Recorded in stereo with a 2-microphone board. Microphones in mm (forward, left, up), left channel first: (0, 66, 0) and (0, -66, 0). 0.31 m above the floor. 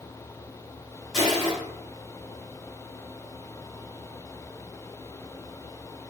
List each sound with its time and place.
1.1 s crushing: centre (ahead or behind), 1.6 m